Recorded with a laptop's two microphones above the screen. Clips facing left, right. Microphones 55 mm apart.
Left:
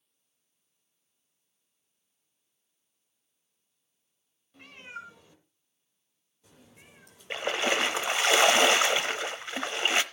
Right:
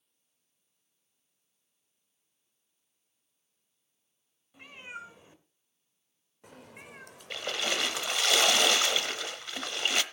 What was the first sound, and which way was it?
A cat meowing, 5° right (ahead or behind).